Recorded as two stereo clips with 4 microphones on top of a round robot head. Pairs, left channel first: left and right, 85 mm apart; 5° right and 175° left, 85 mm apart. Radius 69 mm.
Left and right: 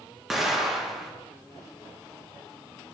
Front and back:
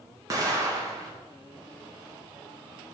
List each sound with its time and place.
0.3 s an explosion: 175° right, 1.3 m